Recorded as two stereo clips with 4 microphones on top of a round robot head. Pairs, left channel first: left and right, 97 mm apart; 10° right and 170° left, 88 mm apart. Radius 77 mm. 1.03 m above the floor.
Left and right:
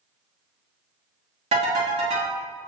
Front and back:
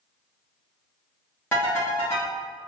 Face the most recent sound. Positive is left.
turn(degrees=-85)